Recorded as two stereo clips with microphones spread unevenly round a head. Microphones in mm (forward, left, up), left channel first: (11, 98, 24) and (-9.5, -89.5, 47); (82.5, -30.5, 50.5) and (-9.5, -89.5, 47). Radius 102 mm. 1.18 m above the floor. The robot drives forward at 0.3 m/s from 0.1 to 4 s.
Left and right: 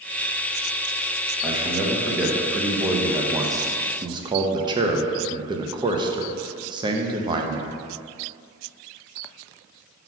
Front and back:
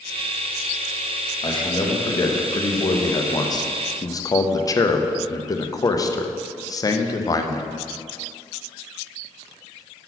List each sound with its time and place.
1.4 s a man speaking: 15° right, 1.4 m; by 7.7 s 25° right, 0.7 m